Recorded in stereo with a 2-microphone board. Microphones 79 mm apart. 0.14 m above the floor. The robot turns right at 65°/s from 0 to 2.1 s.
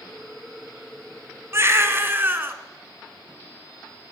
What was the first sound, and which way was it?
A baby crying, 95° right.